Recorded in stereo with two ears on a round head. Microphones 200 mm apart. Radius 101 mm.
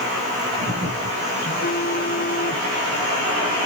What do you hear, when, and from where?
1.4 s a phone buzzing: 40° left (ahead or behind)